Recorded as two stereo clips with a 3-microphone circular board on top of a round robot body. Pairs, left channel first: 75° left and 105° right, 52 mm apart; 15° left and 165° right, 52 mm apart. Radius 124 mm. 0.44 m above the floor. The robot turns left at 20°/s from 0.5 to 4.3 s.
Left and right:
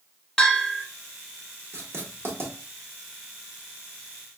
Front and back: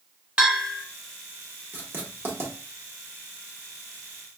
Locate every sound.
0.4 s a bell: 140° left, 1.6 m; by 0.8 s 135° left, 1.6 m
1.7 s writing: 125° right, 1.4 m; by 2.5 s 140° right, 1.4 m